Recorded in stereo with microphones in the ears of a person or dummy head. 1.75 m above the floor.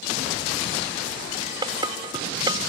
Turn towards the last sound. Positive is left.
turn(degrees=-25)  # may be behind; listen again after turning